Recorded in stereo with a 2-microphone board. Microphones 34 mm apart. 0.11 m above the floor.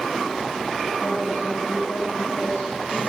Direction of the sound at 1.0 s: 70° left (ahead or behind).